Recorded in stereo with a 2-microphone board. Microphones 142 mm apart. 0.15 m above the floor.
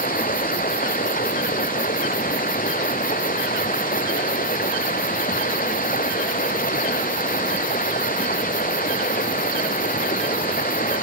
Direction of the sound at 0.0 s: 80° left.